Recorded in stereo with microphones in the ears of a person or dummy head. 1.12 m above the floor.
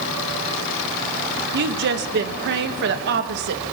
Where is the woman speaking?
50° right (ahead or behind), 1.2 m.